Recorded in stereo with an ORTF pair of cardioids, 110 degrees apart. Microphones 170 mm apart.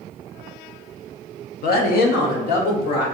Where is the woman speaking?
60° left, 0.7 m; by 3.0 s 75° left, 1.9 m.